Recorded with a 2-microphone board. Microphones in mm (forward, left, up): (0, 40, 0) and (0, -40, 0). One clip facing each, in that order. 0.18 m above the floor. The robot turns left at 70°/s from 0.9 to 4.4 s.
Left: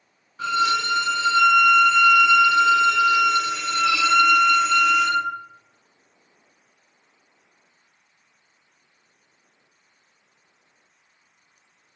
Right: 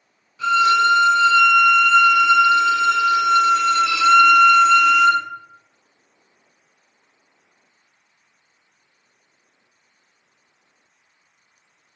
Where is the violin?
70° left, 0.6 m; by 5.2 s 175° right, 0.6 m.